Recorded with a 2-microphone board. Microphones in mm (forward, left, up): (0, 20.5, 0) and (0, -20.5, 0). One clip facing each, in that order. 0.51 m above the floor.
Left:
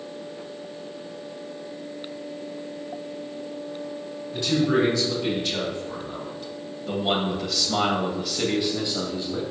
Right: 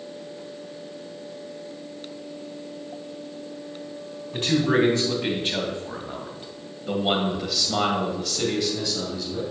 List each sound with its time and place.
4.3 s a man speaking: 50° right (ahead or behind), 3 m; by 9.5 s 30° left (ahead or behind), 2.5 m